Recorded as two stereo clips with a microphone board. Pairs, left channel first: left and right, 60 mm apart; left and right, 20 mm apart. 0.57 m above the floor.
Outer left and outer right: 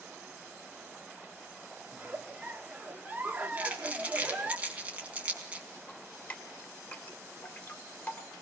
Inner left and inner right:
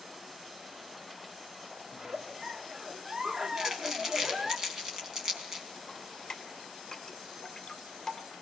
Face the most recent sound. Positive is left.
turn(degrees=20)  # may be behind; listen again after turning